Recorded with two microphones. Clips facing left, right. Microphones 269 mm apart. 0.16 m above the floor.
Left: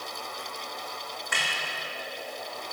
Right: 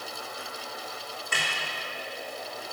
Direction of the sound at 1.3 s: 35° right (ahead or behind).